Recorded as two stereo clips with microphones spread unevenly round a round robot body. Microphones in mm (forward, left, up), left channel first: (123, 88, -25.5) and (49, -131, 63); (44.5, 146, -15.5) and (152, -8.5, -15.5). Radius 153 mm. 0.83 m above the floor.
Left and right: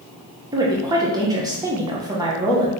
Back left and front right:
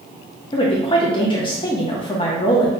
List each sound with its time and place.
0.5 s a woman speaking: 150° left, 0.6 m